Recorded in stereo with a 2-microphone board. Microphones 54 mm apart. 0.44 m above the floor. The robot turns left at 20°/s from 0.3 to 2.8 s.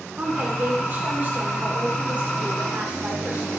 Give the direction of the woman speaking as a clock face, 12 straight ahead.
3 o'clock.